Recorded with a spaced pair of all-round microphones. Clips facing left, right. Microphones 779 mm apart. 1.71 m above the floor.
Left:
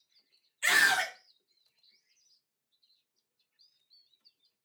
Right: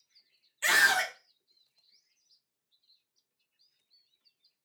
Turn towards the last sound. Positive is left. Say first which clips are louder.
# right 1 dB
turn(degrees=-75)  # may be behind; listen again after turning